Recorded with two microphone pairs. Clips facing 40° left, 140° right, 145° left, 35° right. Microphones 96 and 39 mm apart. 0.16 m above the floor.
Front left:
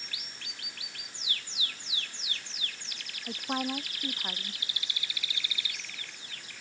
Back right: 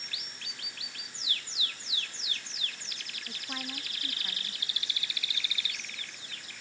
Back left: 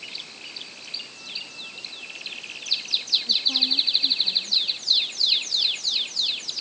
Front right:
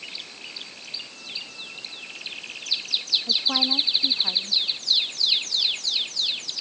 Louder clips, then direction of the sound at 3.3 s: Front left 10 dB, front right 2 dB; 5° right.